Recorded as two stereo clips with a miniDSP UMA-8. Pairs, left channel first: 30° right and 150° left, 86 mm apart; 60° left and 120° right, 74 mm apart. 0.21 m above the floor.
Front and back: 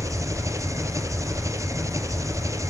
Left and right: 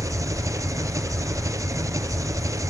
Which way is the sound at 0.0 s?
160° right.